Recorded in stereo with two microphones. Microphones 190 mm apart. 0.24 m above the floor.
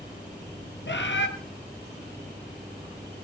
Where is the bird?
75° left (ahead or behind), 2 m.